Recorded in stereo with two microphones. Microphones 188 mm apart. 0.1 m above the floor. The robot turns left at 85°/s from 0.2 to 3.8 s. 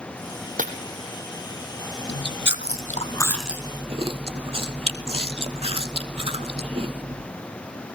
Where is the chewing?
115° left, 1.3 m; by 7.3 s 30° right, 1.3 m.